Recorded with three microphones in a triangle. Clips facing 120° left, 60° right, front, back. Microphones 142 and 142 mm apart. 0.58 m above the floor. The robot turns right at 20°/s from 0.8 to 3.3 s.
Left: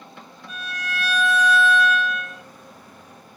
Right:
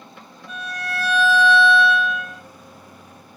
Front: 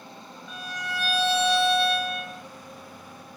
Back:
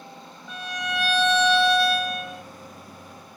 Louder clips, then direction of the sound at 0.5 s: Right 3 dB, back 4 dB; 90° right.